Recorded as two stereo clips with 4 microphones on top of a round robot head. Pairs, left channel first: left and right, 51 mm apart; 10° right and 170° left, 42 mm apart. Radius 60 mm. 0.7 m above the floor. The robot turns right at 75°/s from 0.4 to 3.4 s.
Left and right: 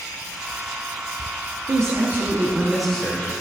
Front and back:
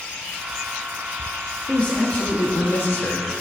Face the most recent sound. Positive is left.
turn(degrees=40)